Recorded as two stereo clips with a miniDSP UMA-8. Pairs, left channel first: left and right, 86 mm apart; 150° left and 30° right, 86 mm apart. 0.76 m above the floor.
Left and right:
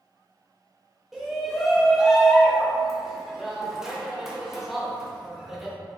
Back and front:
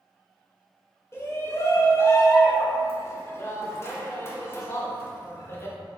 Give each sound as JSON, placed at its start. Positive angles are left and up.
{"t": 1.1, "sound": "a shout", "azimuth_deg": -175, "distance_m": 0.6}